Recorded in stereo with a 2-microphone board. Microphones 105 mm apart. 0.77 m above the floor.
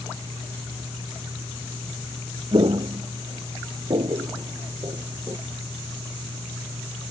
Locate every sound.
2.5 s footsteps: 50° right (ahead or behind); by 5.4 s 35° right (ahead or behind)